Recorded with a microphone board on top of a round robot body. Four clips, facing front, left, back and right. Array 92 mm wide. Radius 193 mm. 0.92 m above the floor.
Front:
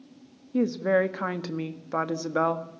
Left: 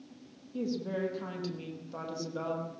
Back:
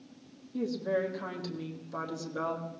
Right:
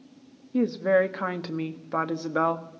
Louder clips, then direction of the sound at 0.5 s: Right 12 dB, front 8 dB; 45° right.